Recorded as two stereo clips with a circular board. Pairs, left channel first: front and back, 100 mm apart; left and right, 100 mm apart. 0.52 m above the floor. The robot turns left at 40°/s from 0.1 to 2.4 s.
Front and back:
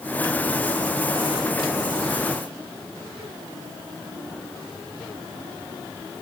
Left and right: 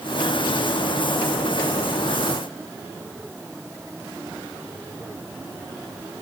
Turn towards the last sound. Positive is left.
No sound to turn to.